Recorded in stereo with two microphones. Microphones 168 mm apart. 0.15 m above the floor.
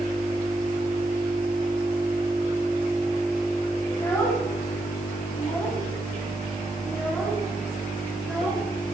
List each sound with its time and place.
3.9 s a child speaking: 15° left (ahead or behind), 9.5 m; by 8.6 s centre (ahead or behind), 12 m